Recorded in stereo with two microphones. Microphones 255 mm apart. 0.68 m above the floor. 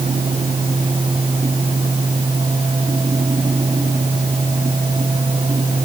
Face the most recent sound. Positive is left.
No sound to turn to.